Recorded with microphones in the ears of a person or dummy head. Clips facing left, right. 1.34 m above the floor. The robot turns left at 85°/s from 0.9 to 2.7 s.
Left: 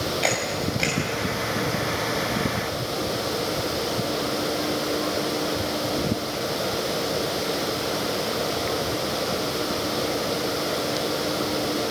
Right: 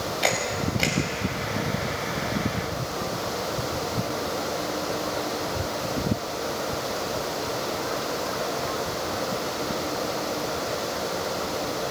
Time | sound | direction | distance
0.2 | a camera shutter | 5° right (ahead or behind) | 5.5 m